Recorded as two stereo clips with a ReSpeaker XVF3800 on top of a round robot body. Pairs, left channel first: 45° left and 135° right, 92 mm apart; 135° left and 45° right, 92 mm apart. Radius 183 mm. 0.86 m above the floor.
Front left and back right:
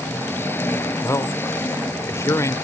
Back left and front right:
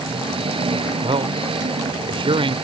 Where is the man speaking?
15° right.